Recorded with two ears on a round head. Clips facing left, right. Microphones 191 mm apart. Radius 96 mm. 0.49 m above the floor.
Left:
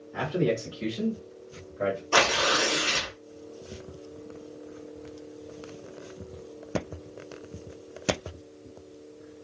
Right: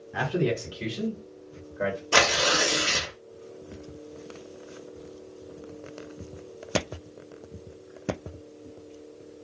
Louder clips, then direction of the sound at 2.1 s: Right 3 dB; 30° right (ahead or behind).